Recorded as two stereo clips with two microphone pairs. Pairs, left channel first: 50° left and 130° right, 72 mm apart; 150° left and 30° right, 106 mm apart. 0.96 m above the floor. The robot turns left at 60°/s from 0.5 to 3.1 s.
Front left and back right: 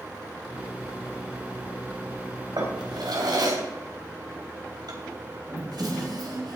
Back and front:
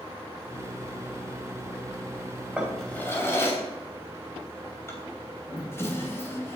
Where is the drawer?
115° right, 3 m; by 6.6 s 145° right, 3 m.